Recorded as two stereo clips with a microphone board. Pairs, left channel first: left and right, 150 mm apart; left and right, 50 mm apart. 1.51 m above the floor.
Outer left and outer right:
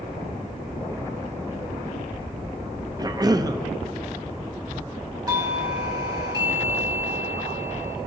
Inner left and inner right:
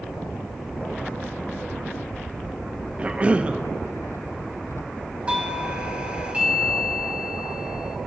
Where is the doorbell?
25° right (ahead or behind), 1.4 m.